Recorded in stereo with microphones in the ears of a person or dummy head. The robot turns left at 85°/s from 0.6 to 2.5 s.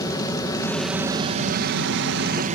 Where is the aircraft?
20° left; by 2.6 s 140° right.